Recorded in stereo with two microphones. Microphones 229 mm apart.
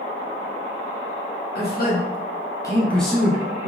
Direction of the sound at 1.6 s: 45° left (ahead or behind).